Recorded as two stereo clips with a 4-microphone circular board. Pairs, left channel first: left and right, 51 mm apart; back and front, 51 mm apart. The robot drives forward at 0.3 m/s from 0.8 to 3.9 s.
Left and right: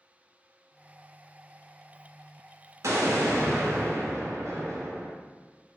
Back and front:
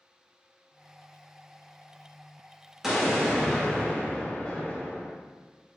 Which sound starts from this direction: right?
An explosion, at 2.8 s.